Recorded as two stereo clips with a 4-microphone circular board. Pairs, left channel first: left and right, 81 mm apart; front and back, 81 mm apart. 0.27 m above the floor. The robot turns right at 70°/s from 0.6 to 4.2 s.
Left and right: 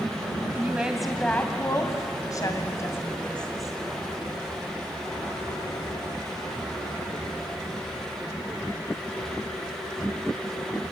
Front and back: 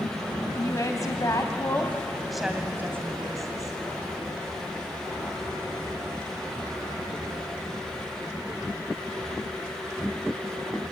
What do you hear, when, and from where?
0.6 s a woman speaking: 30° right, 1.8 m; by 3.7 s 175° right, 1.8 m